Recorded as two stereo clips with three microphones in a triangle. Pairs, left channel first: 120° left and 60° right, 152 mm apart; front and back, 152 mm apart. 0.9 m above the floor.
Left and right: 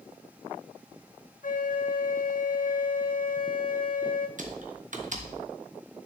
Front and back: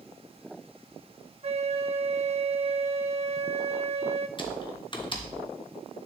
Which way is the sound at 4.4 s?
50° right.